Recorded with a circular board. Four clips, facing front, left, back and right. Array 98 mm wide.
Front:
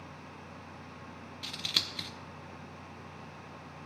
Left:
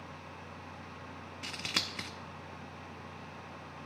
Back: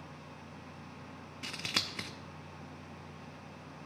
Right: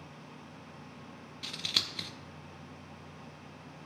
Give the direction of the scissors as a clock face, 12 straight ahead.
7 o'clock.